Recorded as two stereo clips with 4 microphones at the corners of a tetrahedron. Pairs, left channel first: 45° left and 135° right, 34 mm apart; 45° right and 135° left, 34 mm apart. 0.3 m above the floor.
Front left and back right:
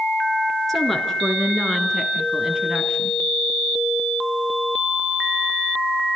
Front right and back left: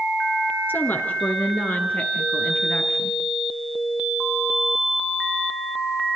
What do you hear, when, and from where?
0.7 s a woman speaking: 40° right, 4.5 m; by 3.2 s 70° right, 4 m